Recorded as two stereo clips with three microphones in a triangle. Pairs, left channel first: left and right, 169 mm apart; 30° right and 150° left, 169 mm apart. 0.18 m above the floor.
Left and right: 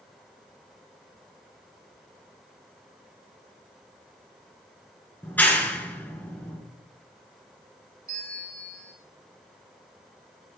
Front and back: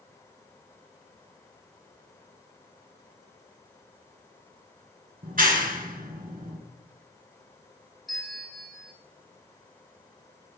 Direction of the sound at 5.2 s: 170° left.